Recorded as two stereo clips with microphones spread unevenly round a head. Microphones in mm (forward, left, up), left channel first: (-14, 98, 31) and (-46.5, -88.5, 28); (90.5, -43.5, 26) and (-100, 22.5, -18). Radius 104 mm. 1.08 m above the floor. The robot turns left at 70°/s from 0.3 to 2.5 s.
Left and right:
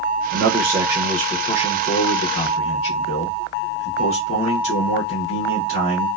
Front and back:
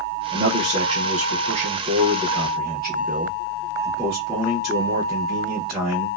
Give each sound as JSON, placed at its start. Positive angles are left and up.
{"t": 0.3, "sound": "a man speaking", "azimuth_deg": -135, "distance_m": 1.0}